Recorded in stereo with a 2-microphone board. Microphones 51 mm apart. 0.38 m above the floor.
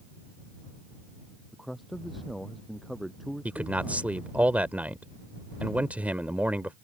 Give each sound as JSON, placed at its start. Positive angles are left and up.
{"t": 1.5, "sound": "a man speaking", "side_deg": 0}
{"t": 3.5, "sound": "a man speaking", "side_deg": -30}